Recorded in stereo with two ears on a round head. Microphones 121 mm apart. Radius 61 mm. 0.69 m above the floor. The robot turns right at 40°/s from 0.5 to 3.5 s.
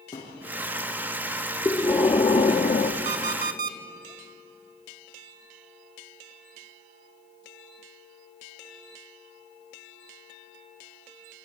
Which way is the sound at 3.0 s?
50° right (ahead or behind).